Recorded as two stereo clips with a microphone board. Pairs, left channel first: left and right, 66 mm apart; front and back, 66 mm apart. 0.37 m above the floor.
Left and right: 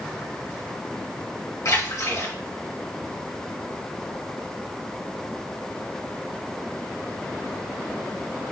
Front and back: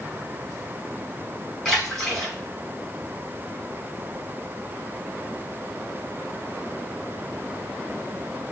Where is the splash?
90° left, 2.5 m.